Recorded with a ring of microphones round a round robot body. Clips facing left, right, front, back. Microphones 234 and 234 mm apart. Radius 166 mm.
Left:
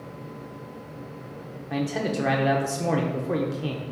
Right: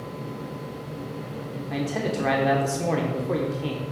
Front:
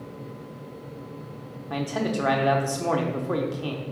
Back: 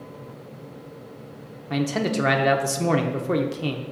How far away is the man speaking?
About 0.8 m.